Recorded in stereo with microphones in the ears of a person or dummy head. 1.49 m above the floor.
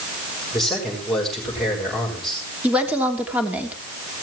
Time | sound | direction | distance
0.5 | a man speaking | 5° left (ahead or behind) | 6 m
2.6 | a woman speaking | 10° right (ahead or behind) | 3 m